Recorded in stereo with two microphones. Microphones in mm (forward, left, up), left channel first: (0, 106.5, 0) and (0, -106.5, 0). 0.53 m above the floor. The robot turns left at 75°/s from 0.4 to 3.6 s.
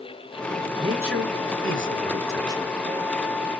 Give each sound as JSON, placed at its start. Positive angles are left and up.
{"t": 0.8, "sound": "a man speaking", "azimuth_deg": -30, "distance_m": 1.6}